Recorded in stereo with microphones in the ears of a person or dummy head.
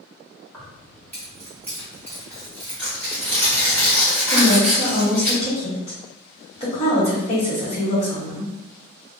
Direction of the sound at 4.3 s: 35° left (ahead or behind).